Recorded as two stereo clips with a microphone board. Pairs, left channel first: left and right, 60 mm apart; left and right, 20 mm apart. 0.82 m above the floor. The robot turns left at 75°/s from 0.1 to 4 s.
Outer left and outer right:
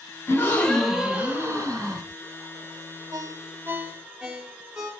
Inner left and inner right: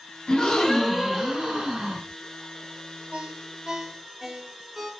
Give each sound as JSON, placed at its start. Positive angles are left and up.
{"t": 0.3, "sound": "a gasp", "azimuth_deg": 45, "distance_m": 3.5}
{"t": 3.1, "sound": "a ringtone", "azimuth_deg": -100, "distance_m": 1.6}